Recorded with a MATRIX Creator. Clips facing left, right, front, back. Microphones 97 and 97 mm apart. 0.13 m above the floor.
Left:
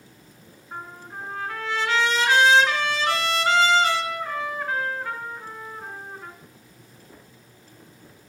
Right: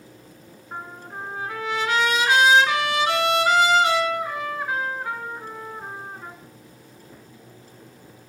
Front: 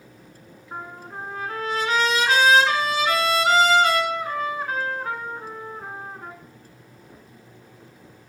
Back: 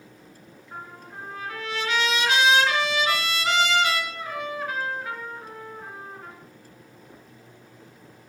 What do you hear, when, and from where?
0.7 s a trumpet: 25° right, 1.8 m